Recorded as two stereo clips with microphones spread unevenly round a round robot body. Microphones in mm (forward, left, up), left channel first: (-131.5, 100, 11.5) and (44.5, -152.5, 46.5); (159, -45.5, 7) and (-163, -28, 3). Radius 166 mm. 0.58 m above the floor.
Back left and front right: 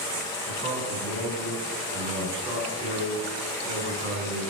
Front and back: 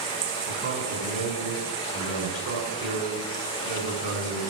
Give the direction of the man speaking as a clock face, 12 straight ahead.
4 o'clock.